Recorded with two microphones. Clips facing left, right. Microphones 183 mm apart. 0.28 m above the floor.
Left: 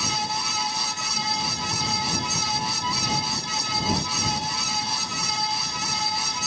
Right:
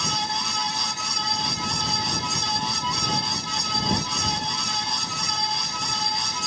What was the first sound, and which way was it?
Only background noise.